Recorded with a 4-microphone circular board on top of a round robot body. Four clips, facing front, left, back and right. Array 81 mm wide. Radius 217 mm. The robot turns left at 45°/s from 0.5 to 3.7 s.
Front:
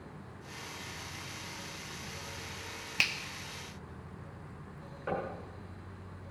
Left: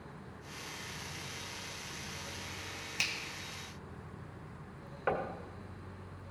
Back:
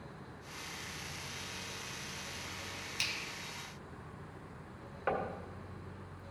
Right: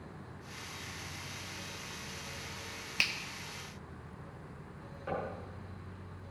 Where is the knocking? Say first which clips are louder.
Left 4 dB, back 1 dB; 120° left, 1.7 m.